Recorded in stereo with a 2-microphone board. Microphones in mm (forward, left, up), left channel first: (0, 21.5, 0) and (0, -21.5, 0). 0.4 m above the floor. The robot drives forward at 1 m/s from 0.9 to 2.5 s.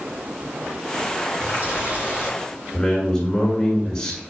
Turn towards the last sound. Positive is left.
turn(degrees=10)  # may be behind; listen again after turning